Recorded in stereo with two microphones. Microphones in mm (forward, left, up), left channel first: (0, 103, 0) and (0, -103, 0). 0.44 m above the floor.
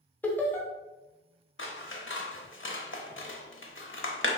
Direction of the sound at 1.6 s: 70° left (ahead or behind).